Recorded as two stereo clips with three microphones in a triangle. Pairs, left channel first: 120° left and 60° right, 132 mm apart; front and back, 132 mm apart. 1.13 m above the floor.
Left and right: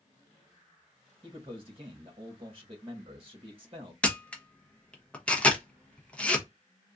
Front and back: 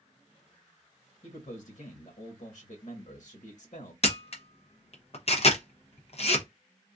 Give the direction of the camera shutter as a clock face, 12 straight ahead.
11 o'clock.